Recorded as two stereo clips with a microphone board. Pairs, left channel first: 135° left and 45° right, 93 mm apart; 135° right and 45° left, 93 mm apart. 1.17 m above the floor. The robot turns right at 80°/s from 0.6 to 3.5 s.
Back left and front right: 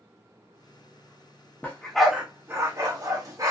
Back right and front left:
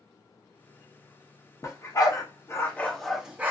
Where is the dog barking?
165° right, 0.7 m; by 3.5 s 15° right, 0.7 m.